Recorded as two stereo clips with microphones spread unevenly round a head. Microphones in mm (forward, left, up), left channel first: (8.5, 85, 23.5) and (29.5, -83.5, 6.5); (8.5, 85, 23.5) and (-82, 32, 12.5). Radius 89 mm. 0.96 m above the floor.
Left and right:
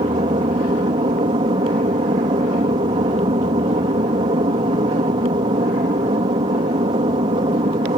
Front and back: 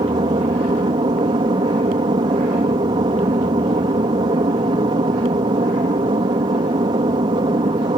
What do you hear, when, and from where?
0.0 s an aircraft: 130° right